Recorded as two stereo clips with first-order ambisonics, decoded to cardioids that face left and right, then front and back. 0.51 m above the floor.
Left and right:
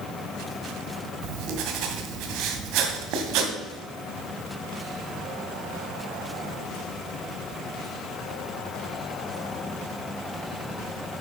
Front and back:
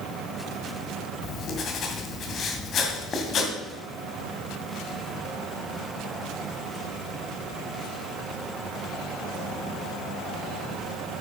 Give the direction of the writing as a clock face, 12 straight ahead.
2 o'clock.